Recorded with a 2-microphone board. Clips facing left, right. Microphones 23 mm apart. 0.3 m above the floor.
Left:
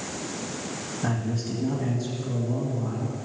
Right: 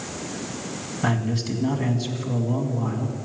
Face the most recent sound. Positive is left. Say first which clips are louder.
# right 5 dB
turn(degrees=-65)  # may be behind; listen again after turning